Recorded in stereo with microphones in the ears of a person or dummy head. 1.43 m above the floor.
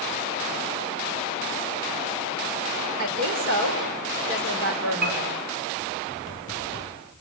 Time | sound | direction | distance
3.0 | a woman speaking | 60° right (ahead or behind) | 5.5 m
5.0 | a piano | 45° right (ahead or behind) | 2.5 m